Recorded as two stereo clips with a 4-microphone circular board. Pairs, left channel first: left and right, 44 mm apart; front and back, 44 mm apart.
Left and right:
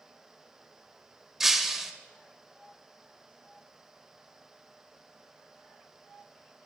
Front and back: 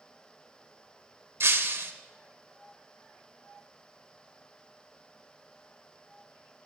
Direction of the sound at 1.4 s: 170° right.